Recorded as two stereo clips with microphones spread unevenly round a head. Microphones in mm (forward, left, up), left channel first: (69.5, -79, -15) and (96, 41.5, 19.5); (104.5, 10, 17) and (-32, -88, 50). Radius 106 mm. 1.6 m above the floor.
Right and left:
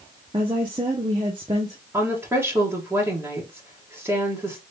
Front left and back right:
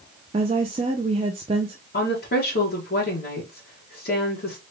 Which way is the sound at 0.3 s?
150° left.